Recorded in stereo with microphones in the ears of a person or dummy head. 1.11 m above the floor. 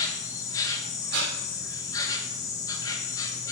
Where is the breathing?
55° right (ahead or behind), 3 m.